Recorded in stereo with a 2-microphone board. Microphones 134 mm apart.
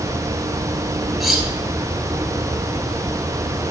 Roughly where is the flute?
I don't hear a flute.